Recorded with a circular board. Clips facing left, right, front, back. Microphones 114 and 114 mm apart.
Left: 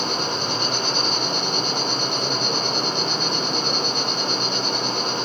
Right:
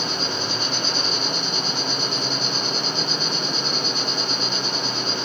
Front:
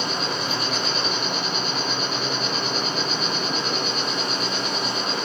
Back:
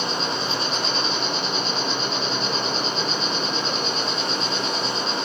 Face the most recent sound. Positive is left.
turn(degrees=120)